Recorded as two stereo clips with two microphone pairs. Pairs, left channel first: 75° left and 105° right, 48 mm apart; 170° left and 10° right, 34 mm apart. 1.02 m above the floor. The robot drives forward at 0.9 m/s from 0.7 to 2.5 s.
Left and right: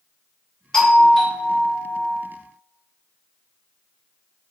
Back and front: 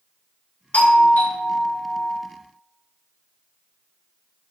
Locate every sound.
0.7 s a doorbell: 150° left, 1.9 m; by 2.2 s 165° left, 3 m